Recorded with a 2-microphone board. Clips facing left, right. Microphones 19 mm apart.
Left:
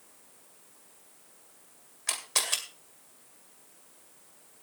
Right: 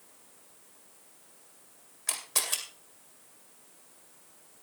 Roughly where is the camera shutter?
Centre.